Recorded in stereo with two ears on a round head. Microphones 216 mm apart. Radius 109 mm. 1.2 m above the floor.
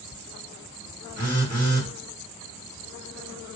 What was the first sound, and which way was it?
A phone buzzing, 35° left (ahead or behind).